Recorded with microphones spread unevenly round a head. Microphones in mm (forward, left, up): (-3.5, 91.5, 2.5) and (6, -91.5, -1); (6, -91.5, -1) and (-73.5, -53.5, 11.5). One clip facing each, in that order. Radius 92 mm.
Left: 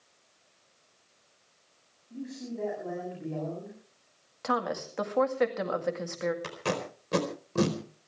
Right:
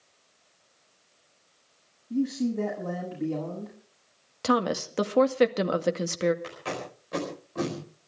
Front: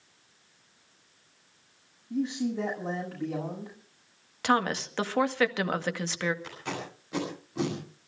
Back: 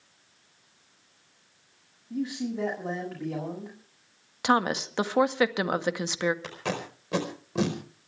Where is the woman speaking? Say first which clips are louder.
Right 6 dB, back 2 dB; 130° right, 1.8 m.